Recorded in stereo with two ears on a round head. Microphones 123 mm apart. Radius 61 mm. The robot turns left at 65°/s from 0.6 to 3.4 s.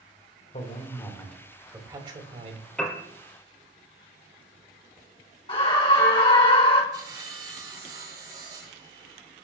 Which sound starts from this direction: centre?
A piano, at 2.8 s.